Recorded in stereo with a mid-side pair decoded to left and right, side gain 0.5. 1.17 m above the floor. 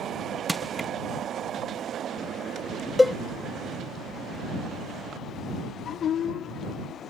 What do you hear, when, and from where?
0.5 s crushing: 15° right
3.0 s a cowbell: 10° left